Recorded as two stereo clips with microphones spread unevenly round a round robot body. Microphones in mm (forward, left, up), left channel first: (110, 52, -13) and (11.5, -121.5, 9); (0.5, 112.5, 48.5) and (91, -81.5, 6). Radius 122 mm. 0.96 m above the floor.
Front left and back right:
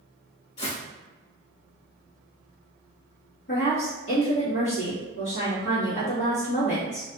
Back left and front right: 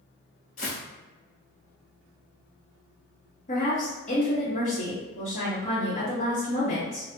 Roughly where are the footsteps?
Left.